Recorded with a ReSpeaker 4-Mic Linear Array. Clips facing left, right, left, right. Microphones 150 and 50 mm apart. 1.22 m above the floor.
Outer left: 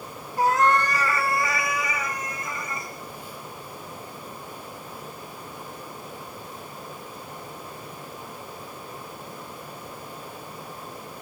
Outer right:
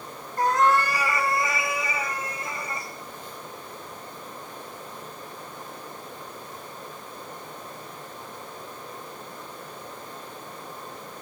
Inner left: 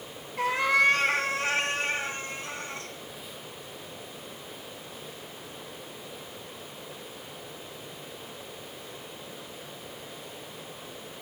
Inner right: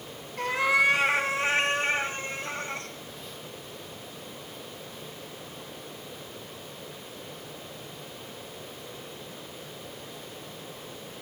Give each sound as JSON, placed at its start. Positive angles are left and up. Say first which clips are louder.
{"t": 0.4, "sound": "a cat meowing", "louder": "outer left 1 dB, even", "side_deg": 10, "distance_m": 0.9}